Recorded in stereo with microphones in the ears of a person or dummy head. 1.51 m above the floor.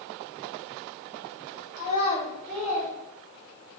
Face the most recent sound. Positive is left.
turn(degrees=-25)  # may be behind; listen again after turning